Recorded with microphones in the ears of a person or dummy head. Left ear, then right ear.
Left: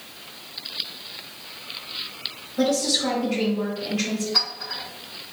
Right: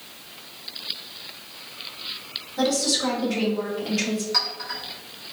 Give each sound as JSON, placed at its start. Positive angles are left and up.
{"t": 2.6, "sound": "a woman speaking", "side_deg": -75, "distance_m": 1.9}
{"t": 4.3, "sound": "a clink", "side_deg": -65, "distance_m": 1.9}